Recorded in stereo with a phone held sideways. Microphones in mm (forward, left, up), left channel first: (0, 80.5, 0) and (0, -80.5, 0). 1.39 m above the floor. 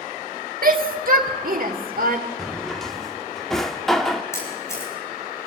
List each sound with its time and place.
0.6 s a shout: 65° right (ahead or behind), 2 m
2.4 s a drawer: 5° left (ahead or behind), 1.6 m
4.3 s a camera shutter: 20° left (ahead or behind), 8 m